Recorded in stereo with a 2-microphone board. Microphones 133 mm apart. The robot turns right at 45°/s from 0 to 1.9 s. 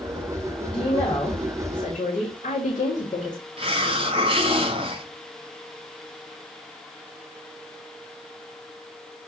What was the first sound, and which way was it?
A woman speaking, 10° left.